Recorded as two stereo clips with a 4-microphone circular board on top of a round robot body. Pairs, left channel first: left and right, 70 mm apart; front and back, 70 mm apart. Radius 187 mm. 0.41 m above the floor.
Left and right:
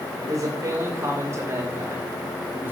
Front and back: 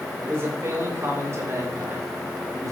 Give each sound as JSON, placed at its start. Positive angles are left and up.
{"t": 0.2, "sound": "a man speaking", "azimuth_deg": -125, "distance_m": 3.5}